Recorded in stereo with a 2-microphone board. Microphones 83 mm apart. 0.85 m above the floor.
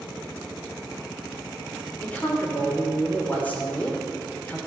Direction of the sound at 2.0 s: 15° left (ahead or behind).